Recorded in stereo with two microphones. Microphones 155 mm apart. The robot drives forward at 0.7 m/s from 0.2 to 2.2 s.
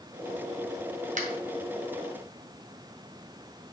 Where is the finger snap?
55° right (ahead or behind), 1.9 m; by 1.3 s 50° right (ahead or behind), 1.9 m.